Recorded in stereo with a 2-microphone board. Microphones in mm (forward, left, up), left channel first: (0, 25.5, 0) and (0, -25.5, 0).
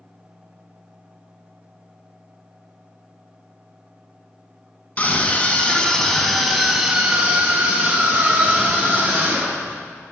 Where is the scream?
35° left (ahead or behind), 1.4 m; by 9.8 s 45° right (ahead or behind), 2.5 m.